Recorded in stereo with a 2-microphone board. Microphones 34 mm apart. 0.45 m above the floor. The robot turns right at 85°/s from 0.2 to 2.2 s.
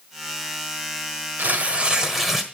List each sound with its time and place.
1.4 s tearing paper: 80° right, 1.5 m; by 2.4 s 15° right, 1.5 m